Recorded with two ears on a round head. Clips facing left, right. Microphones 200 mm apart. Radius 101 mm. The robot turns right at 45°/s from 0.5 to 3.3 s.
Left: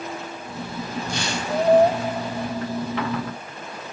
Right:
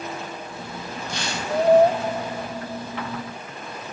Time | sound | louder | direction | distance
1.1 | tearing paper | left 2 dB | 70° left (ahead or behind) | 9 m